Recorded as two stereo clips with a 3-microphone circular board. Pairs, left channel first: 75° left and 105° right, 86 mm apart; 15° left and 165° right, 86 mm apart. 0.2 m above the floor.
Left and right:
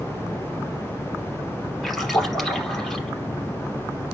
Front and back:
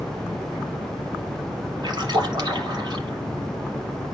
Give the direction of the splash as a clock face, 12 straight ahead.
7 o'clock.